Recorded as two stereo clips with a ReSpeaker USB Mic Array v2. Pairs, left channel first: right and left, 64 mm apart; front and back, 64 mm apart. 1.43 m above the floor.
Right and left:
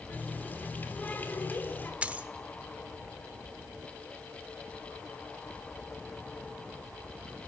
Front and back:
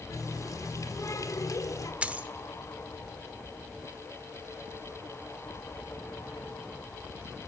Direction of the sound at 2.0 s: 135° left.